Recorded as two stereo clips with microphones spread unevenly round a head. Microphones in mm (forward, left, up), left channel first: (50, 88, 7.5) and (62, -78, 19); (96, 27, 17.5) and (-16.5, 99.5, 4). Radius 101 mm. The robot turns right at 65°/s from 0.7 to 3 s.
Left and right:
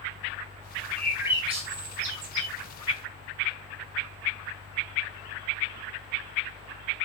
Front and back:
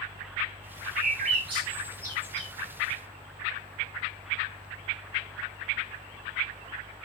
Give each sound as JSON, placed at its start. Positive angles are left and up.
{"t": 1.0, "sound": "a bird", "azimuth_deg": 175, "distance_m": 0.6}